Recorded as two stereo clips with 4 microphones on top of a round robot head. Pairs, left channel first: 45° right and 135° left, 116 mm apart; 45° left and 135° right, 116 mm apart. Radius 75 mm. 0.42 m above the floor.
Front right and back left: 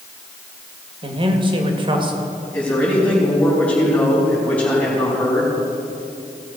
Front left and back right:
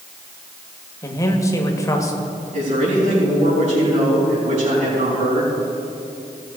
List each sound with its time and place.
1.0 s a man speaking: 100° left, 1.6 m
2.5 s a man speaking: 120° right, 4.5 m